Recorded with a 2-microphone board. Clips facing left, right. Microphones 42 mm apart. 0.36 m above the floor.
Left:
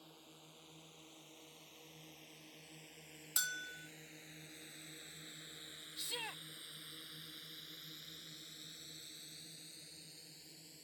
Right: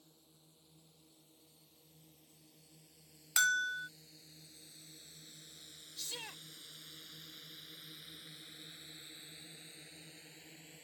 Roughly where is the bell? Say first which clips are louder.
Right 12 dB; right.